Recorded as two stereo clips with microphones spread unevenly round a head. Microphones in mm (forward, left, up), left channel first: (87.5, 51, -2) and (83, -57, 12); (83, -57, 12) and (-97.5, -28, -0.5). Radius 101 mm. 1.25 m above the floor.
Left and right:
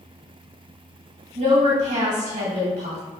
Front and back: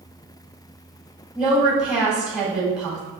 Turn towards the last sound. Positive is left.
turn(degrees=-105)